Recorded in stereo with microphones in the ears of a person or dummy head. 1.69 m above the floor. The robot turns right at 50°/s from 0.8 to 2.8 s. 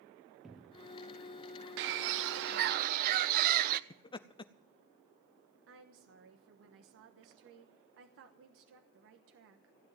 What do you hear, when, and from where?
0.4 s a cupboard door: 5° right (ahead or behind), 0.9 m; by 0.9 s 10° right (ahead or behind), 0.9 m
1.8 s a bird: 110° right, 0.5 m; by 3.8 s 55° right, 0.5 m
3.9 s laughter: 25° left (ahead or behind), 0.6 m
5.7 s a woman speaking: 65° right (ahead or behind), 1.2 m